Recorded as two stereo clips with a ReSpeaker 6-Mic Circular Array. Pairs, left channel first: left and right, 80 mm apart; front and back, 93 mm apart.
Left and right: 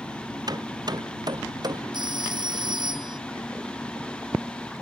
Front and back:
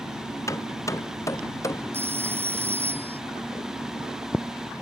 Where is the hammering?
55° right.